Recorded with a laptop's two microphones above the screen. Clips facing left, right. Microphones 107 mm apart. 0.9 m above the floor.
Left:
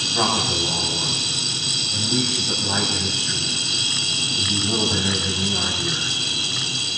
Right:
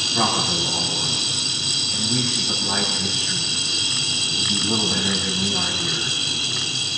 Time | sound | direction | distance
0.1 | a man speaking | 10° left (ahead or behind) | 6 m